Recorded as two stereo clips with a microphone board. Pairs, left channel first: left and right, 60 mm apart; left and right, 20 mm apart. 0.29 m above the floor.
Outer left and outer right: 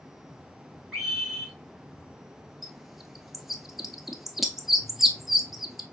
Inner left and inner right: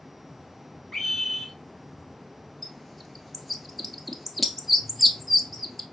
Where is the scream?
5° left (ahead or behind), 2.5 m.